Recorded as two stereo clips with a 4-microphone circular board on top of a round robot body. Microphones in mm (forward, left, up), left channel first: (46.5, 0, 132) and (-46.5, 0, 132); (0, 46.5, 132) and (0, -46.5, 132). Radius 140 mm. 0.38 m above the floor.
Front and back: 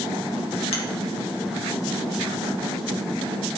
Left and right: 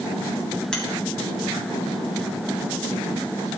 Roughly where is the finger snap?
Ahead.